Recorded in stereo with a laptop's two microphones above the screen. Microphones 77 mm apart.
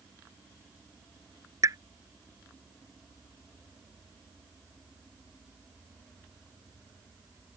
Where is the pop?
45° right (ahead or behind).